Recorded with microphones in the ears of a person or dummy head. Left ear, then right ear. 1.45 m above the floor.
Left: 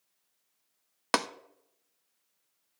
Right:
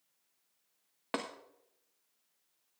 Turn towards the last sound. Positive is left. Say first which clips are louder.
# left 10 dB
turn(degrees=65)  # may be behind; listen again after turning